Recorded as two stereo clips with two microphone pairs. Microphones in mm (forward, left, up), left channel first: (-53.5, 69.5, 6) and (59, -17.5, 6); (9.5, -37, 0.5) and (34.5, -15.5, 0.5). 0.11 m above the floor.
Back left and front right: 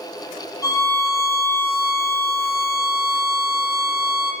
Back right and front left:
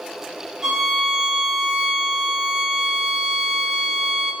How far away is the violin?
About 0.8 m.